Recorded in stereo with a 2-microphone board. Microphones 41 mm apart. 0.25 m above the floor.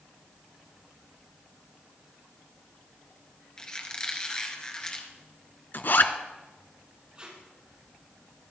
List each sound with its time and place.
3.6 s a squeak: 20° left (ahead or behind), 2 m
5.7 s a zipper: 55° left (ahead or behind), 1.1 m
7.2 s tape being pulled: 25° right (ahead or behind), 6.5 m